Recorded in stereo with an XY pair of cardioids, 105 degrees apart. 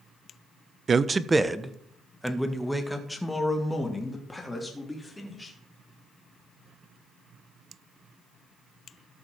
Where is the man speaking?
40° right, 0.5 m; by 5.5 s 15° left, 3 m.